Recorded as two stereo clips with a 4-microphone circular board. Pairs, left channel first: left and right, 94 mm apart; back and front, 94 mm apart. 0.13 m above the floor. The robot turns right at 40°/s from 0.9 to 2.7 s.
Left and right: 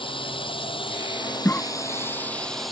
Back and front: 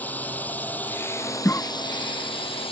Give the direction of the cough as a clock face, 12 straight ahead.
7 o'clock.